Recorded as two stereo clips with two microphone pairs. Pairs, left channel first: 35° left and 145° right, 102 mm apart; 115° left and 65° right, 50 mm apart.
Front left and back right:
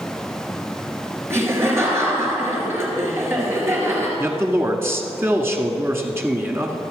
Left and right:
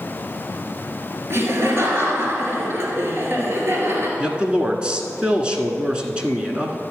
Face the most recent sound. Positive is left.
turn(degrees=-110)